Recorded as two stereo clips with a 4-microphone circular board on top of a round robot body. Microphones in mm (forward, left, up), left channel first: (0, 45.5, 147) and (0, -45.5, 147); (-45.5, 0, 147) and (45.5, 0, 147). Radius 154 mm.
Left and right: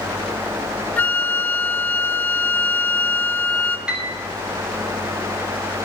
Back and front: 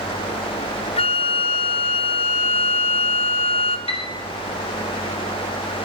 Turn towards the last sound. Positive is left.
turn(degrees=-170)